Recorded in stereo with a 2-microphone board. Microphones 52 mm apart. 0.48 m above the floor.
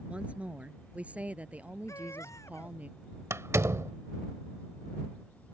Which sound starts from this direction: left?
A baby crying, at 1.9 s.